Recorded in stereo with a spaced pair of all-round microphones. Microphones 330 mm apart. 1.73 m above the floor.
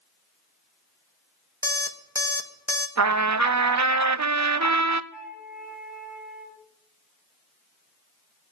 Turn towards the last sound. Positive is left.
turn(degrees=0)  # may be behind; listen again after turning